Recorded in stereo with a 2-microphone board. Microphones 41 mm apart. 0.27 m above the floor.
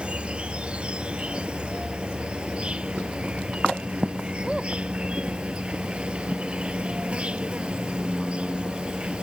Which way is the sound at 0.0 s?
30° right (ahead or behind).